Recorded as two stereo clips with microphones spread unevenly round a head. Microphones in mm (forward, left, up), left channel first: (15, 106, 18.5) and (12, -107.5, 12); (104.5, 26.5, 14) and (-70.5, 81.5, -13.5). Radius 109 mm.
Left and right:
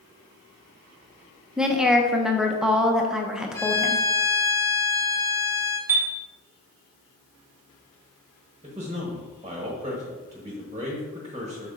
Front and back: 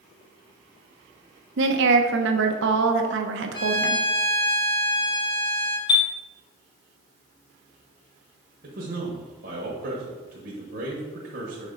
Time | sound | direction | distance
1.6 | a woman speaking | 175° right | 0.7 m
3.5 | a violin | 20° left | 0.9 m
5.9 | a chime | 15° right | 0.9 m
8.6 | a man speaking | 160° right | 1.1 m